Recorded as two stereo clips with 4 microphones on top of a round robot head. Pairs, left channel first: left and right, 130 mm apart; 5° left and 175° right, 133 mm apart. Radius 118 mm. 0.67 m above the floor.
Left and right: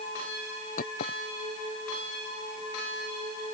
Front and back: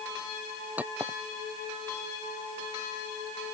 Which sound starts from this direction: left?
A clink, at 0.8 s.